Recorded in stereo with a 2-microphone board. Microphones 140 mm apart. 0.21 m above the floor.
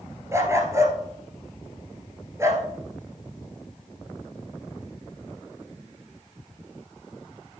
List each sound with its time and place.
0.3 s a dog barking: 20° right (ahead or behind), 1.5 m